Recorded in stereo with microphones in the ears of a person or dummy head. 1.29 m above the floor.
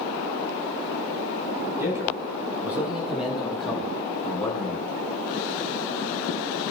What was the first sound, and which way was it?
A man speaking, 15° right (ahead or behind).